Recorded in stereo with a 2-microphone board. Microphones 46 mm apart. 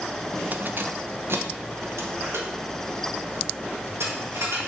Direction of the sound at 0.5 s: 35° right (ahead or behind).